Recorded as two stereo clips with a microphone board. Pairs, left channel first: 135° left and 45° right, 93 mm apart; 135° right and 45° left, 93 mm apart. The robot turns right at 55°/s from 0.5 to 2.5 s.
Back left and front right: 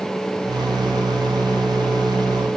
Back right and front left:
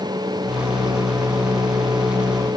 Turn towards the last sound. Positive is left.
No sound to turn to.